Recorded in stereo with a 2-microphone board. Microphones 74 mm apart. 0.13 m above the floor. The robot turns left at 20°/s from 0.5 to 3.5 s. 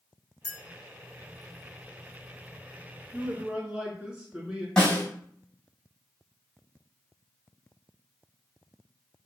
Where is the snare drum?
10° left (ahead or behind), 1.7 m.